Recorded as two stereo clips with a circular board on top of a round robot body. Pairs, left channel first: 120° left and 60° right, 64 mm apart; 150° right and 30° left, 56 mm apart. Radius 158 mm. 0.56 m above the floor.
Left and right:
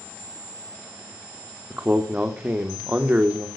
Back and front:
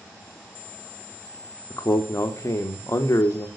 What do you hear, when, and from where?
1.7 s a man speaking: 125° right, 1.7 m